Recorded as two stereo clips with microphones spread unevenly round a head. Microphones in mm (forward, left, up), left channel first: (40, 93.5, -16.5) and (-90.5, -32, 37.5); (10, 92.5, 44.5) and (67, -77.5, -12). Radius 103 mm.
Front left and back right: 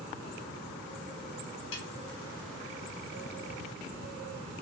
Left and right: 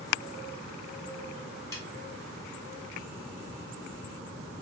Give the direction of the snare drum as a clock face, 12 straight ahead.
10 o'clock.